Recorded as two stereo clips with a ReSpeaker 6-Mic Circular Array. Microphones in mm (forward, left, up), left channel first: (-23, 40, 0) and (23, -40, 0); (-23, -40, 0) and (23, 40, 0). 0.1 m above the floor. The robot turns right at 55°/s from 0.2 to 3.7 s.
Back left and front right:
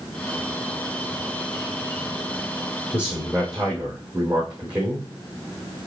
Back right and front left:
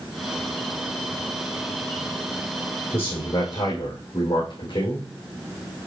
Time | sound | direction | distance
2.9 | a man speaking | 175° left | 4 m